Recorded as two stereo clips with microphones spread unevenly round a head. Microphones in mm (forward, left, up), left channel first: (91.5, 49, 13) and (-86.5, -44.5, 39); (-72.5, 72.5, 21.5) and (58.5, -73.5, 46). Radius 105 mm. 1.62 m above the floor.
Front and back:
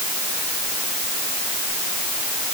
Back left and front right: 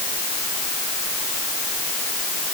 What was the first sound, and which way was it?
Only background noise.